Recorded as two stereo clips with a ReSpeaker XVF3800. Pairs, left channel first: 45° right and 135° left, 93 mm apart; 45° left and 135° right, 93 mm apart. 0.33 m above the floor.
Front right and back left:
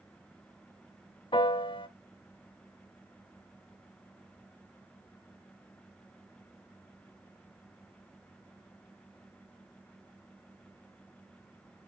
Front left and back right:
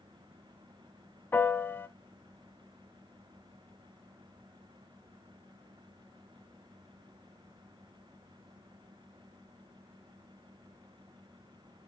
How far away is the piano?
About 0.6 m.